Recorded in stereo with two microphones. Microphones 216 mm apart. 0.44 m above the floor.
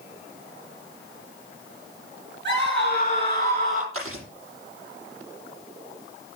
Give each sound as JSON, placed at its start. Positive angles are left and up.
{"t": 2.5, "sound": "a scream", "side_deg": -55, "distance_m": 6.0}
{"t": 3.9, "sound": "chewing", "side_deg": -80, "distance_m": 8.0}